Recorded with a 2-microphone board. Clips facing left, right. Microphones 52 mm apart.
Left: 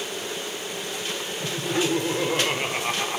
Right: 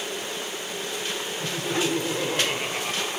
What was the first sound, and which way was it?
Laughter, centre (ahead or behind).